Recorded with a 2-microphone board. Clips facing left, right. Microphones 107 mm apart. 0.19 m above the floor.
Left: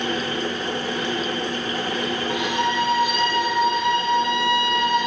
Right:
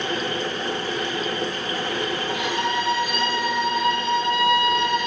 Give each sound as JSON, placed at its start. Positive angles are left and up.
{"t": 2.3, "sound": "a violin", "side_deg": 15, "distance_m": 5.5}